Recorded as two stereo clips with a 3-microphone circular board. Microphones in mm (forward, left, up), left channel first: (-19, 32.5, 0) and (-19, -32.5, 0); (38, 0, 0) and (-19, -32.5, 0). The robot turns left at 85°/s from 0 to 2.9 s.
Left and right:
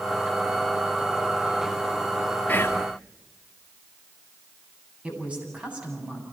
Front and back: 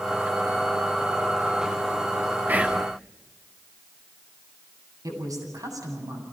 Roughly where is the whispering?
Behind left.